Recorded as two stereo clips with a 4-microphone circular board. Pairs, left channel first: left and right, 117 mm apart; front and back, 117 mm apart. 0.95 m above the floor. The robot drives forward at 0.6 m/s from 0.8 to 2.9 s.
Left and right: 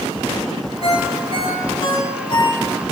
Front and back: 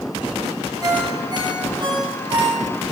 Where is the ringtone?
120° left, 3.5 m; by 2.6 s 135° left, 4 m.